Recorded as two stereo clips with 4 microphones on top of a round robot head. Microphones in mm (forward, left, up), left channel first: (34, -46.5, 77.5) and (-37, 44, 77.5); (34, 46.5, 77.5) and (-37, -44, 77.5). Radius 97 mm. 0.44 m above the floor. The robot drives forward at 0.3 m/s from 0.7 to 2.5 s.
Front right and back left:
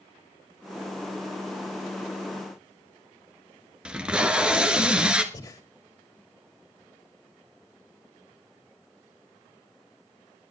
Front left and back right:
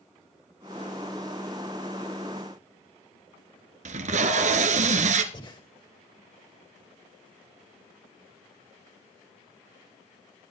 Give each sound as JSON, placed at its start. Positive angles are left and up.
{"t": 3.9, "sound": "tape being pulled", "azimuth_deg": -150, "distance_m": 1.6}
{"t": 5.3, "sound": "breathing", "azimuth_deg": 5, "distance_m": 3.0}